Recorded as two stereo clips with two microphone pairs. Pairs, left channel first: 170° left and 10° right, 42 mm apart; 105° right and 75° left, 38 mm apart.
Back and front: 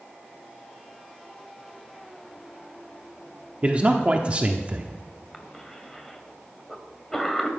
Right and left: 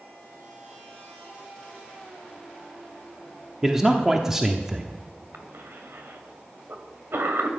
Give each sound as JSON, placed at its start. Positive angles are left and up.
{"t": 3.6, "sound": "a man speaking", "azimuth_deg": 10, "distance_m": 0.9}
{"t": 5.3, "sound": "a cough", "azimuth_deg": 85, "distance_m": 2.0}